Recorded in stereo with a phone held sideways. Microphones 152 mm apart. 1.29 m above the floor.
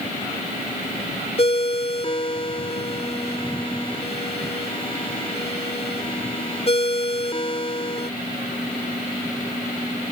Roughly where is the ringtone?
Left.